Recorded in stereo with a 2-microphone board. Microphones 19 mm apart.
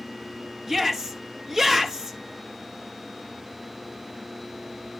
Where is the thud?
I don't hear a thud.